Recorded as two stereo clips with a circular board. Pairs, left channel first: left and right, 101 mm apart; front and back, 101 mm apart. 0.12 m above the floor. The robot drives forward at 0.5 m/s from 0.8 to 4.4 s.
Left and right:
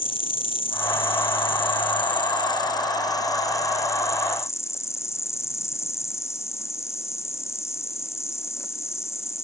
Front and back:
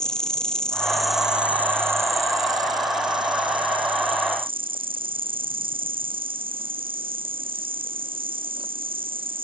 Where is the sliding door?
No sliding door in this recording.